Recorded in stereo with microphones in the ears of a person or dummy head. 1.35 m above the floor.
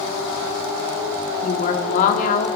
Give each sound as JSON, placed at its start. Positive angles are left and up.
{"t": 1.4, "sound": "a woman speaking", "side_deg": 45, "distance_m": 3.5}